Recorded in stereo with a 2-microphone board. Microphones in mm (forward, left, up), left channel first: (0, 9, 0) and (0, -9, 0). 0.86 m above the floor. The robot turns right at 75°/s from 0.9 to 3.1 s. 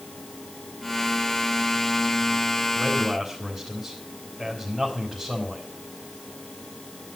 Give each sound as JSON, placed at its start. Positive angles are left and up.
{"t": 2.8, "sound": "a man speaking", "side_deg": -20, "distance_m": 4.5}